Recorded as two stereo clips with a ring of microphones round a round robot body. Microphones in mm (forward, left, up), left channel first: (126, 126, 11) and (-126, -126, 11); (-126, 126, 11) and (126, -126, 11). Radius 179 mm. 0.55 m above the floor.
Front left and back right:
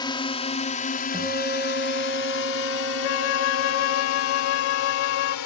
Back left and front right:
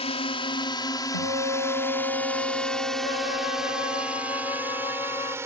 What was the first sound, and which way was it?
A drone, 100° left.